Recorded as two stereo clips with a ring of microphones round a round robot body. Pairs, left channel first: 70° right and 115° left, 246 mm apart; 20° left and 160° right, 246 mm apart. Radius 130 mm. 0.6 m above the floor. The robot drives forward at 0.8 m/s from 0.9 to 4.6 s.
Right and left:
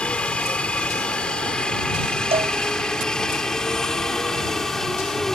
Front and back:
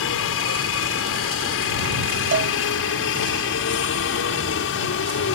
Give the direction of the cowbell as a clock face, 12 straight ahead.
6 o'clock.